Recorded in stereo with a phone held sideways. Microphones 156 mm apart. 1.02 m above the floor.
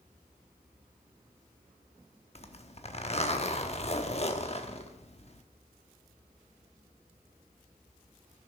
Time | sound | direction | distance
2.4 | a zipper | 40° left (ahead or behind) | 1.0 m